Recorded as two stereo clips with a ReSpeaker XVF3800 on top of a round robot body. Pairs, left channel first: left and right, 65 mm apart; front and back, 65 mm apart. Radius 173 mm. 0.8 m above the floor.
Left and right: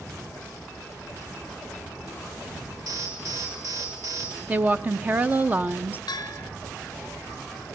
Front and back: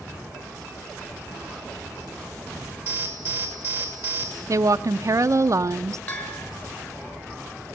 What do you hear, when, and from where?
2.9 s an alarm: 120° right, 6 m
4.5 s a woman speaking: 150° right, 0.6 m
6.1 s a bell: 75° left, 1.1 m